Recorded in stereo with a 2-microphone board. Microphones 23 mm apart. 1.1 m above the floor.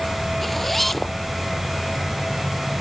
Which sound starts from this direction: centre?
A zipper, at 0.4 s.